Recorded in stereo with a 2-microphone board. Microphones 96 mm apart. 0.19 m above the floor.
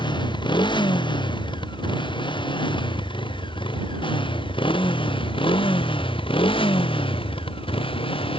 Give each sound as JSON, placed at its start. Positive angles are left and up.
{"t": 0.0, "sound": "a motorcycle", "side_deg": 55}